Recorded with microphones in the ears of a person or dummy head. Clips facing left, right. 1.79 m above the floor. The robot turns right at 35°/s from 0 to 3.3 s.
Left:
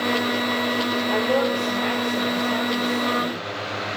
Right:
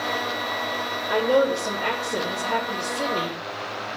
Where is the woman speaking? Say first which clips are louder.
Right 3 dB; 165° right, 2.5 m; by 3.4 s 85° right, 2.5 m.